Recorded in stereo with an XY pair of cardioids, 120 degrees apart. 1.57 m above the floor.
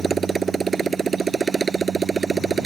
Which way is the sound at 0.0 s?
30° right.